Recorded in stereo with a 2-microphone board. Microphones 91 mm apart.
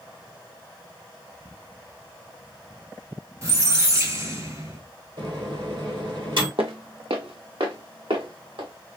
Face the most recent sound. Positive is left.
turn(degrees=-75)  # may be behind; listen again after turning